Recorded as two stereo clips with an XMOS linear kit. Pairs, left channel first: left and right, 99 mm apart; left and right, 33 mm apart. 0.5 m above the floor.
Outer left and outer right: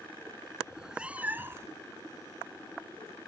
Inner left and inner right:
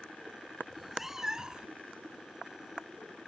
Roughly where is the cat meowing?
Centre.